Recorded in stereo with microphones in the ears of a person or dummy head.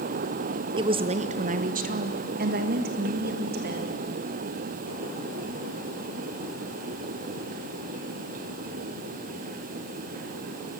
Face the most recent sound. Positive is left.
turn(degrees=-50)  # may be behind; listen again after turning